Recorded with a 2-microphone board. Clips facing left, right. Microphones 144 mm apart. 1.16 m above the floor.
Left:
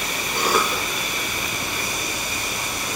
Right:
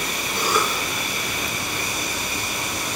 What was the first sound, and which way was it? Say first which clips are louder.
A cough: left 1 dB; 65° left (ahead or behind).